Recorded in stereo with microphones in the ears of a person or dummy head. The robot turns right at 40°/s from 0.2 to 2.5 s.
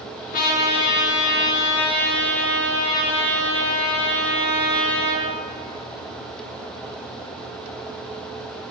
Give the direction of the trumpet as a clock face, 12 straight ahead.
10 o'clock.